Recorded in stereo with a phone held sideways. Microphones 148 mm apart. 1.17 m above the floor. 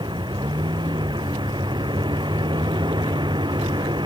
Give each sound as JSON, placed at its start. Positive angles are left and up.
{"t": 0.0, "sound": "a vehicle", "side_deg": -30}